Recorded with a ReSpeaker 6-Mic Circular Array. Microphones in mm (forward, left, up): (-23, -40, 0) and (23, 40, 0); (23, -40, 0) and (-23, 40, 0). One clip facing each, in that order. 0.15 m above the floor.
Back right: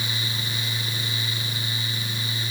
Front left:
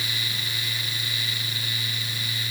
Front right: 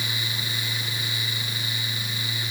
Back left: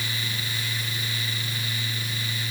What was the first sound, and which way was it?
Only background noise.